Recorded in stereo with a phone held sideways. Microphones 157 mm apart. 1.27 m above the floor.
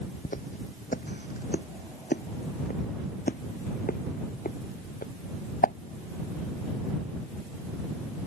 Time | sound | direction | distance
0.2 | footsteps | 75° left (ahead or behind) | ?